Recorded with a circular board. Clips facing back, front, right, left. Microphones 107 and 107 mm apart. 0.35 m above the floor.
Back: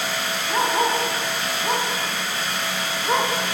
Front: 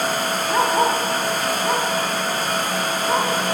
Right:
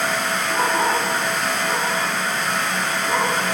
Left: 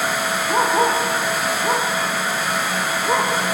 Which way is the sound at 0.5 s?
75° left.